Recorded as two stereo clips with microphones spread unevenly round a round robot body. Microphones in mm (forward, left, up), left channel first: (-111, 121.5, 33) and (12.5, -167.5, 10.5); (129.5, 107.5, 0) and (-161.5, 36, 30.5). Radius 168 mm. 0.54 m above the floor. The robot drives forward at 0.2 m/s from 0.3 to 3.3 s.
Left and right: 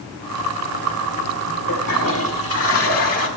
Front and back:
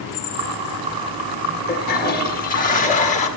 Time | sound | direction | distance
1.7 | a toilet flushing | 60° left | 1.9 m